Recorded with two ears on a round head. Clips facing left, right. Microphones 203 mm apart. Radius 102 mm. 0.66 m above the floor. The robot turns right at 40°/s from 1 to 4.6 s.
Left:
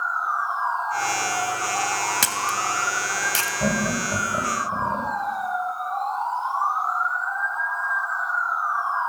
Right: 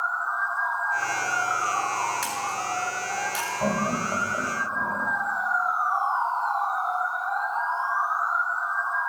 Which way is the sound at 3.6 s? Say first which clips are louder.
Left 2 dB; 20° left (ahead or behind).